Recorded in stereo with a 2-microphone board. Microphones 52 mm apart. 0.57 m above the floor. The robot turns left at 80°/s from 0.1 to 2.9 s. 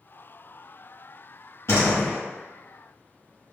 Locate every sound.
1.7 s a door slam: 110° left, 1.8 m; by 2.2 s 70° left, 1.8 m